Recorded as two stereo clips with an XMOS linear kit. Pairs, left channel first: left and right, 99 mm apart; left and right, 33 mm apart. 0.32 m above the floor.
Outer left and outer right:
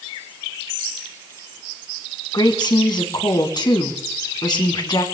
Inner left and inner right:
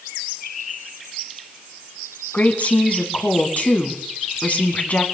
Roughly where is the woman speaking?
Left.